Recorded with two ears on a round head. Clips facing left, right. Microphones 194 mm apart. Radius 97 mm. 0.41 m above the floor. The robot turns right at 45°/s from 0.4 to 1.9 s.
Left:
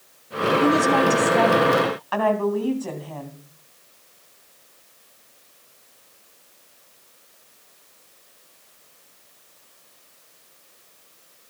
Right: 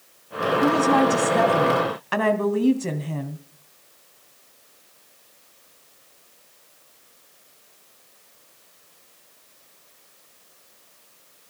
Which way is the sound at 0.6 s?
155° left.